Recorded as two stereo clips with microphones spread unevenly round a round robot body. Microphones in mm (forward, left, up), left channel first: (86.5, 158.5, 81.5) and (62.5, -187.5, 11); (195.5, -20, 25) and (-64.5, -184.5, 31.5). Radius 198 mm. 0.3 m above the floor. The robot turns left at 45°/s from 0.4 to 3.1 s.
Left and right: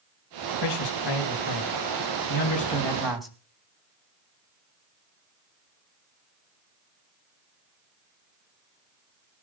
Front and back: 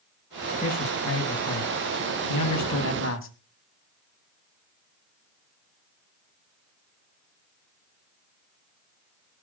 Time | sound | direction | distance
0.6 | a man speaking | 100° left | 3 m